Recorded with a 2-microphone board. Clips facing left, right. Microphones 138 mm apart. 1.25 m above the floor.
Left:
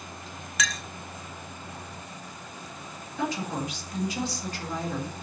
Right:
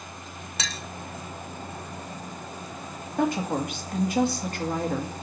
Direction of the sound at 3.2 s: 55° right (ahead or behind).